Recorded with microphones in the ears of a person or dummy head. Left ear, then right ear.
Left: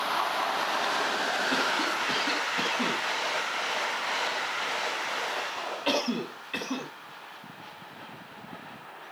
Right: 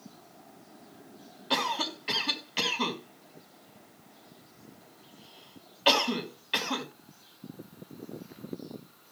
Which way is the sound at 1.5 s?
40° right (ahead or behind).